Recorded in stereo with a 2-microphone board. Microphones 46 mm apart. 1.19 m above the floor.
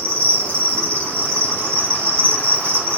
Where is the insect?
35° left (ahead or behind), 0.9 m.